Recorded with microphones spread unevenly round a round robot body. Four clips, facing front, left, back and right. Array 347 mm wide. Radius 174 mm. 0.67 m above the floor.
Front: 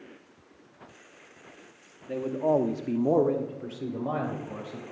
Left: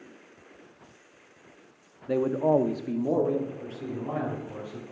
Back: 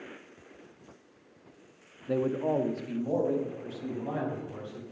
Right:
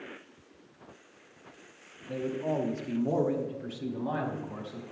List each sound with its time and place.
2.1 s a man speaking: 110° left, 1.0 m; by 4.8 s 10° right, 4 m